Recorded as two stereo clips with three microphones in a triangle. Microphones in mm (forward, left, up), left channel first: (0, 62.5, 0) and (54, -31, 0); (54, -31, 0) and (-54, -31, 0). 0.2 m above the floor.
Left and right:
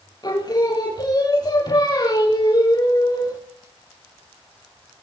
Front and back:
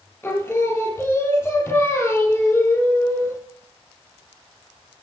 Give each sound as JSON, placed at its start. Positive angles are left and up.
{"t": 0.2, "sound": "singing", "azimuth_deg": 70, "distance_m": 4.0}